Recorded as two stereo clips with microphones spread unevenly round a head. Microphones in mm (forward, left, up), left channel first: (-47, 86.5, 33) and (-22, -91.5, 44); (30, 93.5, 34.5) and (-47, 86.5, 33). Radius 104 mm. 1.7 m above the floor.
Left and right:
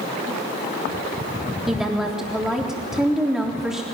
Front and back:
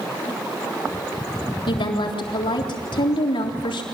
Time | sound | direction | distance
1.7 | a woman speaking | 5° left | 3.5 m